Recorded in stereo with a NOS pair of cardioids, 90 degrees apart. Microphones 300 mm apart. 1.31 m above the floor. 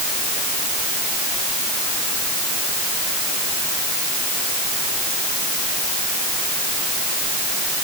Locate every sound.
Only background noise.